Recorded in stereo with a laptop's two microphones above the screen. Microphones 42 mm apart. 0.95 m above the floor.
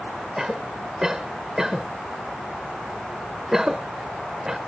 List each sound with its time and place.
0.4 s a cough: 15° right (ahead or behind)